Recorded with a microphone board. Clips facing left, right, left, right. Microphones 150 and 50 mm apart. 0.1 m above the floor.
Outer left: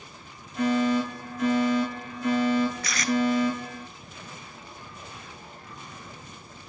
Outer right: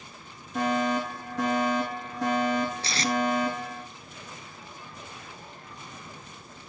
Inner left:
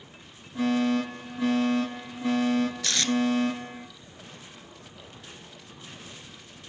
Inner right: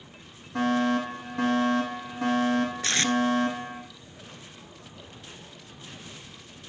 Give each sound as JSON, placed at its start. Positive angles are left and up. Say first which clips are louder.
{"t": 0.6, "sound": "a fire alarm", "louder": "outer left 3 dB, even", "side_deg": -75, "distance_m": 9.5}
{"t": 2.8, "sound": "tape being pulled", "louder": "outer left 1 dB, inner right 2 dB", "side_deg": -30, "distance_m": 1.1}